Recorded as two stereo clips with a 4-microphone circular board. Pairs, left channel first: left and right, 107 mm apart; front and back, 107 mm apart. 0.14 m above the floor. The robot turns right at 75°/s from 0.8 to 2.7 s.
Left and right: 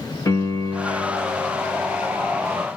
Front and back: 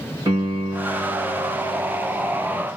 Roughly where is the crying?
No crying in this recording.